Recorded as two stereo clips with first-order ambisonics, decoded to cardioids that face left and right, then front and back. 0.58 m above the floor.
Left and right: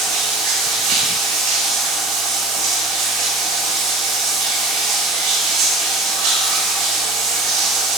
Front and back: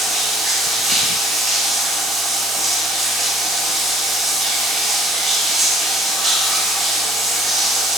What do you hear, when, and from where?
0.0 s running water: 95° right, 1.7 m